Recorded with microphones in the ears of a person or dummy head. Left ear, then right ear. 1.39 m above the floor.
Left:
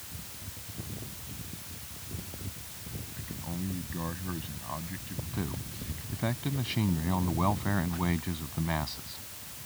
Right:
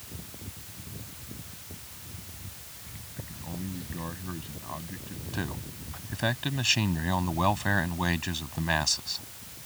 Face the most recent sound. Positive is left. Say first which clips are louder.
# right 4 dB
turn(degrees=-85)